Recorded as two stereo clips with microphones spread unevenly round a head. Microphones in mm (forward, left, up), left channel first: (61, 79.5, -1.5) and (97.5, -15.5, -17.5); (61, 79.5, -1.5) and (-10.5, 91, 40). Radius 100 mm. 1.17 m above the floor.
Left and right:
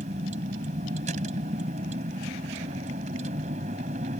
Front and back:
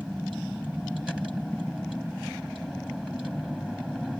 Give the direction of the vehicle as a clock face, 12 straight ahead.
4 o'clock.